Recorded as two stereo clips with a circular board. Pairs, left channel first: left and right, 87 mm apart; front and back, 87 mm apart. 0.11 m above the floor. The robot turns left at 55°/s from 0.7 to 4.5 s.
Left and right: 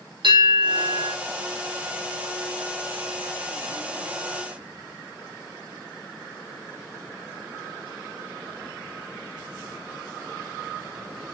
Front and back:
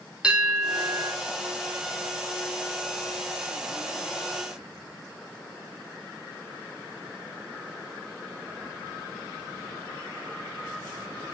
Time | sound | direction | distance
0.2 | a bell | 100° right | 5 m